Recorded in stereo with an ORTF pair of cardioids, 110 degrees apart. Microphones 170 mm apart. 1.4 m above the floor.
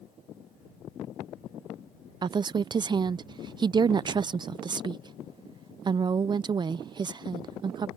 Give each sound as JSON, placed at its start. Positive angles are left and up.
{"t": 2.2, "sound": "a woman speaking", "azimuth_deg": -25}